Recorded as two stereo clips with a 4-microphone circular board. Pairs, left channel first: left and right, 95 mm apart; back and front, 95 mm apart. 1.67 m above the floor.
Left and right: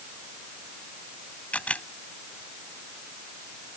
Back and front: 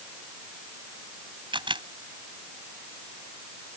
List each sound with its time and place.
1.5 s a camera shutter: 15° left